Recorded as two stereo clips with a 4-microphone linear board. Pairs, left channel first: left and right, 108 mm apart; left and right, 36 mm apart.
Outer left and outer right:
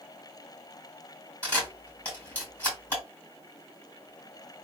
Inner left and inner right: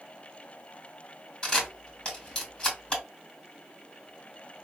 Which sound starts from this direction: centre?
A camera shutter, at 1.4 s.